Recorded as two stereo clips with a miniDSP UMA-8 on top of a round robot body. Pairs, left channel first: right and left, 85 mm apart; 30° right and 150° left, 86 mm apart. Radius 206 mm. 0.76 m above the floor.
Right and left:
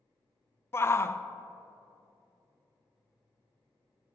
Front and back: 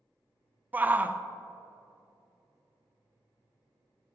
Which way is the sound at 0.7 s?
145° right.